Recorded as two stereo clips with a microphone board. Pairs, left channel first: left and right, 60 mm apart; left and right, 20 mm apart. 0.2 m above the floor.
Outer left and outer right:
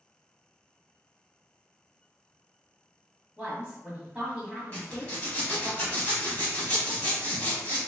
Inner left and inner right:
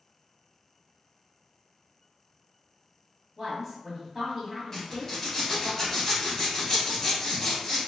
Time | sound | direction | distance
3.4 | a woman speaking | 20° right (ahead or behind) | 1.2 m
4.7 | a zipper | 25° left (ahead or behind) | 1.2 m